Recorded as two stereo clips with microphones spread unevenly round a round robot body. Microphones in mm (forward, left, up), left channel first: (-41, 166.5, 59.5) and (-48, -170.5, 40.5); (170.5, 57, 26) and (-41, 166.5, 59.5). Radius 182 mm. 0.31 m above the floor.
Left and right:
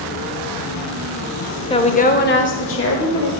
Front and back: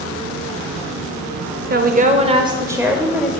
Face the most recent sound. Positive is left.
turn(degrees=50)